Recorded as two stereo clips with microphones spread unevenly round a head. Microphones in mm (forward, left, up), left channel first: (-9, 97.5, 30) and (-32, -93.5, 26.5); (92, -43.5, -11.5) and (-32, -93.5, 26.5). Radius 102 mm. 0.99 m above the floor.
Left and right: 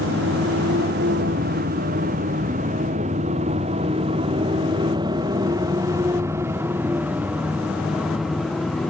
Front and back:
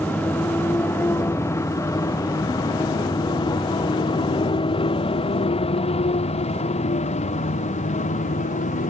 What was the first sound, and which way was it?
A motorcycle, 55° right.